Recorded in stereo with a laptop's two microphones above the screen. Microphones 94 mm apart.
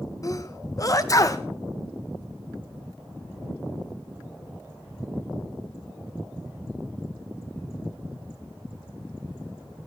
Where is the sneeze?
40° left (ahead or behind), 0.7 m.